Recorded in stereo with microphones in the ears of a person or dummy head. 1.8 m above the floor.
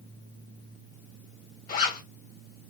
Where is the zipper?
50° left (ahead or behind), 2 m.